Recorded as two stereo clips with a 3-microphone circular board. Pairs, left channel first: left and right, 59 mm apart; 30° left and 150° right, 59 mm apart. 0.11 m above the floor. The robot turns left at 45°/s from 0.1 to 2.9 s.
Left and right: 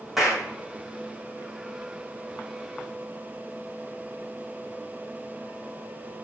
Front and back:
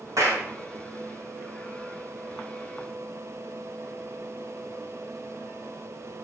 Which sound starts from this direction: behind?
A clap, at 0.2 s.